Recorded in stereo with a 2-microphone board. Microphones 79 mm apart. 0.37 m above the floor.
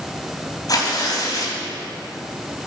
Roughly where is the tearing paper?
Left.